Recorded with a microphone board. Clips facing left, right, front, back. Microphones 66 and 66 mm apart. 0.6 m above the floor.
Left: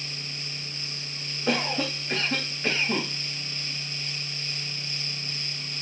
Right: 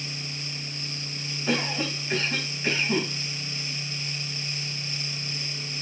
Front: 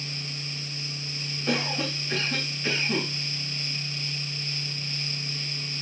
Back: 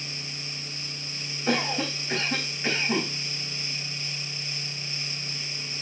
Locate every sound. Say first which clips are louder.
1.5 s a cough: left 1 dB, back 2 dB; 120° left, 3.5 m